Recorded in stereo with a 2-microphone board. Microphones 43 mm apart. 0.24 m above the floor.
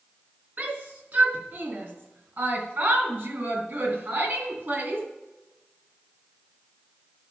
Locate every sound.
0.6 s a shout: 45° right (ahead or behind), 3 m; by 5.0 s 50° right (ahead or behind), 2.5 m